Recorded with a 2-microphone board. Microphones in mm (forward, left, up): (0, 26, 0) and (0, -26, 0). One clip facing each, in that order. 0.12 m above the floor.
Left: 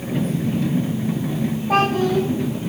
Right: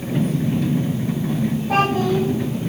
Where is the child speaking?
5° left (ahead or behind), 4.5 m.